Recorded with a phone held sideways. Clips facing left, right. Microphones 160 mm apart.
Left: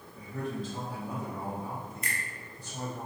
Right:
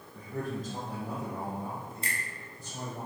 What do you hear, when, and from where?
0.1 s a man speaking: 50° right (ahead or behind), 0.6 m; by 3.0 s 25° right (ahead or behind), 2 m
2.0 s a finger snap: 30° right (ahead or behind), 0.8 m